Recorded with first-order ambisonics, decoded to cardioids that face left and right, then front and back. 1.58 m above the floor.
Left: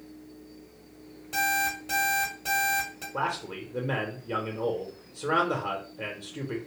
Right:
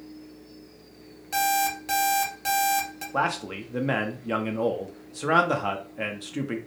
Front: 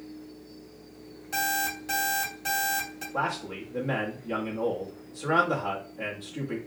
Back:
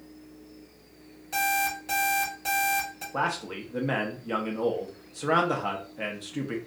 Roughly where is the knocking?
No knocking in this recording.